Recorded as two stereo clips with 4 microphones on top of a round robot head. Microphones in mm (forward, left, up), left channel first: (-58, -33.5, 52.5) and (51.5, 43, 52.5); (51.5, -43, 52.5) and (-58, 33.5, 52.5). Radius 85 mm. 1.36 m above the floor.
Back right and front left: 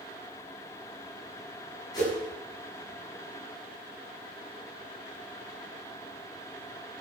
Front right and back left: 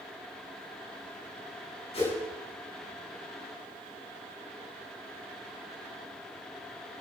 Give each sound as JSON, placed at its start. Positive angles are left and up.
{"t": 1.9, "sound": "a whoosh", "azimuth_deg": -80, "distance_m": 8.0}